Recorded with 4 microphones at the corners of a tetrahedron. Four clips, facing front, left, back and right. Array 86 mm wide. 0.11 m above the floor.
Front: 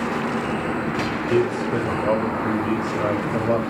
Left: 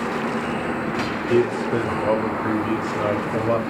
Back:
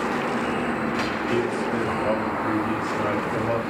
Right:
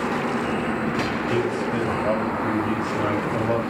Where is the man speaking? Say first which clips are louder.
Left 7 dB, front 5 dB; 85° left, 4 m; by 3.6 s 80° left, 6.5 m.